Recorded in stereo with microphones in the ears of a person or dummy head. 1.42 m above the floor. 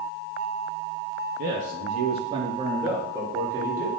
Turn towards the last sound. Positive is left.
turn(degrees=-10)  # may be behind; listen again after turning